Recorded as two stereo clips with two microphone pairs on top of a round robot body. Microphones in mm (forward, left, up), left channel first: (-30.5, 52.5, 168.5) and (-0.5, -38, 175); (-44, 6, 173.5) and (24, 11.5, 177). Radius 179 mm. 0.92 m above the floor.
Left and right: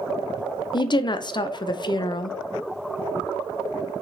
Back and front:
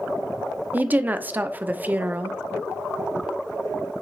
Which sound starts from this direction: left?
A woman speaking, at 0.7 s.